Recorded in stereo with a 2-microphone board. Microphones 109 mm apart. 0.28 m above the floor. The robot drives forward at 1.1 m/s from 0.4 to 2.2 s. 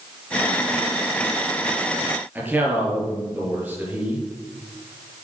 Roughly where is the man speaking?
Centre.